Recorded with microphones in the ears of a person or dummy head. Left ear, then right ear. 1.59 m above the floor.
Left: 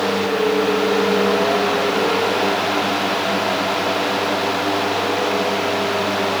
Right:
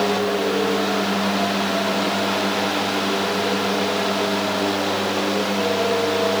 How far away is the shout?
No shout in this recording.